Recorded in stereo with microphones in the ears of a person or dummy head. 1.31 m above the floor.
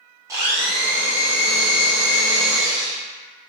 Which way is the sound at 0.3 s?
10° right (ahead or behind).